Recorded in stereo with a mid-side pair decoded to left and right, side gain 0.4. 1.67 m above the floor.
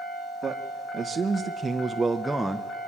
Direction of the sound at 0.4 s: 40° right.